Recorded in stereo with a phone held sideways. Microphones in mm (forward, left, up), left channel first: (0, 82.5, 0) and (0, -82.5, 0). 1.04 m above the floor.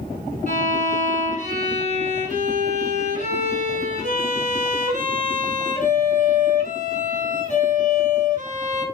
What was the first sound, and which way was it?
A violin, 50° right (ahead or behind).